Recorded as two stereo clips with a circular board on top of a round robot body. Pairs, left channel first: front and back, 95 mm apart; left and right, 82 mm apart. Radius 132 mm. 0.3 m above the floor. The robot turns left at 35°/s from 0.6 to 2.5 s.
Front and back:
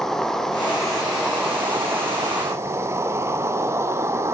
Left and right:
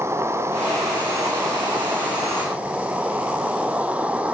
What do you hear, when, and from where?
0.0 s an insect: 80° right, 1.0 m; by 4.3 s 150° right, 1.0 m